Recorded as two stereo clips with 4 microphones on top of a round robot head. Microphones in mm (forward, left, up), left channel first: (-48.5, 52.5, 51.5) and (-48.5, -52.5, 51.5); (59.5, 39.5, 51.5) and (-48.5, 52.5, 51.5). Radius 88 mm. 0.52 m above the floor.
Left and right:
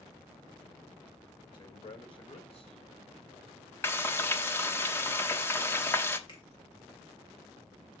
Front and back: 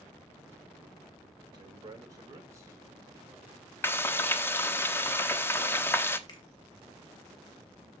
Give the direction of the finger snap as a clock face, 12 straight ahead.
11 o'clock.